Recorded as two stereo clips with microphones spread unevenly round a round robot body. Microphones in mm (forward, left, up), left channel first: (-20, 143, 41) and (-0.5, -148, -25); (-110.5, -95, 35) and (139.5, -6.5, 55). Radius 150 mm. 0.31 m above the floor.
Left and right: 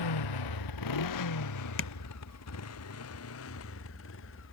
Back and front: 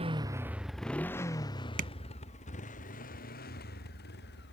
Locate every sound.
0.0 s a motorcycle: 95° left; by 4.5 s 145° left
1.8 s tapping: 60° left